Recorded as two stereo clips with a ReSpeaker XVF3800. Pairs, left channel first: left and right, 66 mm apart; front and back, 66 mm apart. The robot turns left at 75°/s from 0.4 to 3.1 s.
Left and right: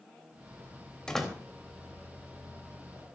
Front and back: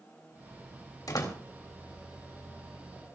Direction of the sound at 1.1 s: 10° left.